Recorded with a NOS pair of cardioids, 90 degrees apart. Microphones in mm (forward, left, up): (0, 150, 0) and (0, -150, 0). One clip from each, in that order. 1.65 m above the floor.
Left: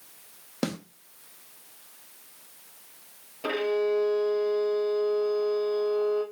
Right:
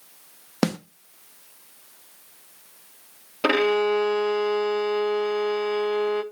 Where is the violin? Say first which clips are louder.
Right 6 dB; 55° right, 0.5 m.